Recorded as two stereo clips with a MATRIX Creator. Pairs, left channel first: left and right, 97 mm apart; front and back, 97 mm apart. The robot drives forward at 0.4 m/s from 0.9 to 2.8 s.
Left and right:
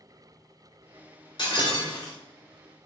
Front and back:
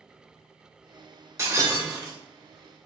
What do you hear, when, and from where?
1.4 s breaking glass: 120° left, 2 m; by 2.2 s 130° left, 2.5 m